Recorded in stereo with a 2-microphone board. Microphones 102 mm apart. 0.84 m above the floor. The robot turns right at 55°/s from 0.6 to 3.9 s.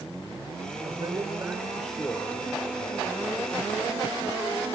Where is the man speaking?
55° right, 2.5 m; by 3.2 s 75° left, 2.5 m.